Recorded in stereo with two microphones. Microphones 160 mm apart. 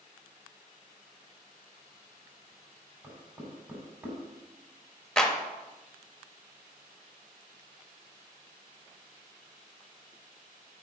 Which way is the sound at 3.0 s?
10° right (ahead or behind).